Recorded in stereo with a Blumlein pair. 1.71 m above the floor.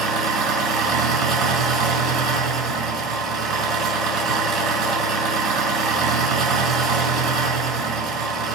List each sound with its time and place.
0.0 s an engine running: 35° right, 5 m